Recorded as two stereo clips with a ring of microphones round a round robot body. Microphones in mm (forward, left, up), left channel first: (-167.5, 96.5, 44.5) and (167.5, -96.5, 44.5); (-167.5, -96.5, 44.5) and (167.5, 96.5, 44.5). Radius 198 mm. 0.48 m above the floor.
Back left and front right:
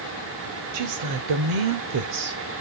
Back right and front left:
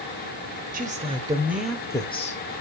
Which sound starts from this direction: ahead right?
A woman speaking, at 0.7 s.